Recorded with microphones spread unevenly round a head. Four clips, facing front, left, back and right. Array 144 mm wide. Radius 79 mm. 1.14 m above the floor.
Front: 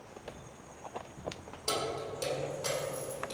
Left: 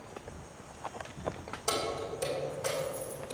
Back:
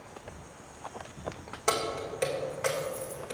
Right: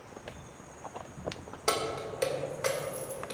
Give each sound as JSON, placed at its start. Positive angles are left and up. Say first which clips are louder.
{"t": 1.7, "sound": "keys jangling", "louder": "right 2 dB, back 4 dB", "azimuth_deg": -135, "distance_m": 2.5}